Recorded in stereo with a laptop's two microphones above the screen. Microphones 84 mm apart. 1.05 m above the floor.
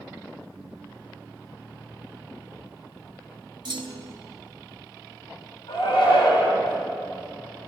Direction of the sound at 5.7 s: 80° left.